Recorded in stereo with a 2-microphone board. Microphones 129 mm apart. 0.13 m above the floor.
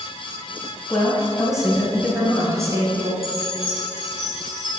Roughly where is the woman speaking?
Centre.